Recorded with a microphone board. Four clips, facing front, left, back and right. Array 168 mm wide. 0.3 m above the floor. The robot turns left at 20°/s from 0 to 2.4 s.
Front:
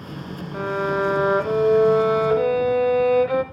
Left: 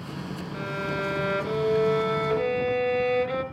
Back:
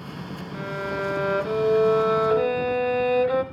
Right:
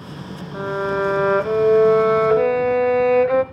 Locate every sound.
0.5 s a violin: 45° right, 0.7 m; by 3.4 s 80° right, 0.7 m